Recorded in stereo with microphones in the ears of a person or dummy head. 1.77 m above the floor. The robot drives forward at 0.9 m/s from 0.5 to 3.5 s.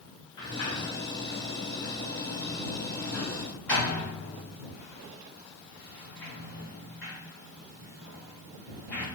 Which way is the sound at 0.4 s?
25° left (ahead or behind).